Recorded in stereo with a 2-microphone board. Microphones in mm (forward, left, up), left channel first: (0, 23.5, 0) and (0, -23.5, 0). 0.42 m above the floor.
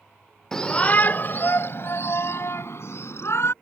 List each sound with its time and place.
0.5 s a shout: 10° left (ahead or behind); by 3.5 s 70° left (ahead or behind)